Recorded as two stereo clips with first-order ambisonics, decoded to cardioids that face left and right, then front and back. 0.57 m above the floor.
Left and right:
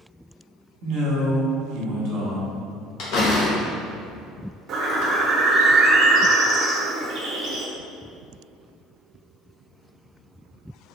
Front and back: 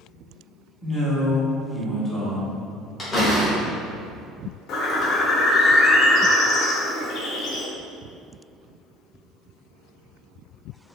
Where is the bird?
40° right, 0.5 m.